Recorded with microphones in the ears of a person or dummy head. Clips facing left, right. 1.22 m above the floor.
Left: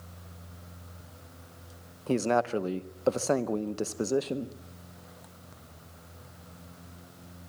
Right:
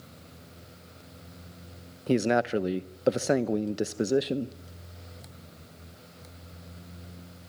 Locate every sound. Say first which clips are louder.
2.1 s a man speaking: right 2 dB; 20° right (ahead or behind), 0.7 m